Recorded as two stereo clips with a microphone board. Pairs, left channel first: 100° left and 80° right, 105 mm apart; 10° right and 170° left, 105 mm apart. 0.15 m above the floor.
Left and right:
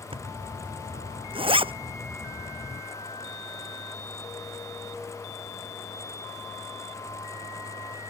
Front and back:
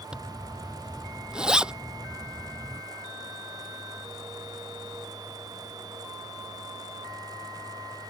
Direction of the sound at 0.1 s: 110° right.